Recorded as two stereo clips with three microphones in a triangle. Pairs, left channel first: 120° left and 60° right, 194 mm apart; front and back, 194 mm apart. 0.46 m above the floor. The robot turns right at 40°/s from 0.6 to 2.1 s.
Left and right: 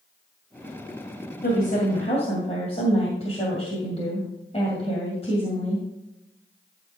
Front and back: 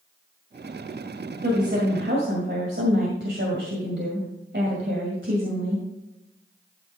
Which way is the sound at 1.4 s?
145° left.